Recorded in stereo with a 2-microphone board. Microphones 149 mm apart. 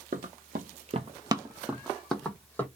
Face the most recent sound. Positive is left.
turn(degrees=10)  # may be behind; listen again after turning